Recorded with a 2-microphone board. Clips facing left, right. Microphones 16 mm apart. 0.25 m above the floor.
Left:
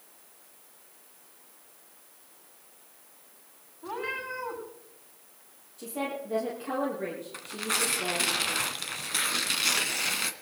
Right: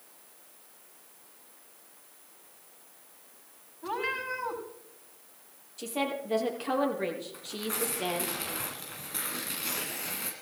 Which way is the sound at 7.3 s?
65° left (ahead or behind).